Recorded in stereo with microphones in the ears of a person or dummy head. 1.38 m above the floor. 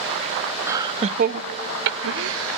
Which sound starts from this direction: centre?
Laughter, at 0.7 s.